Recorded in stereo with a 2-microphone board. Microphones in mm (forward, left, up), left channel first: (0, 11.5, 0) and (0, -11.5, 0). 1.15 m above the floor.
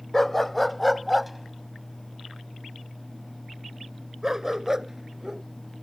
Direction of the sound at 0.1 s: 15° left (ahead or behind).